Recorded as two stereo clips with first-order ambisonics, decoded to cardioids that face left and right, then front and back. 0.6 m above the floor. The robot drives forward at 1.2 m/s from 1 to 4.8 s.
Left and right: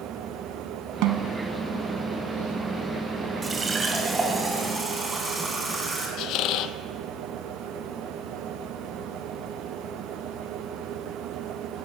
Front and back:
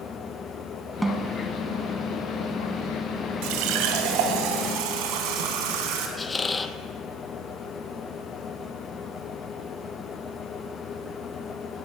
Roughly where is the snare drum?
Right.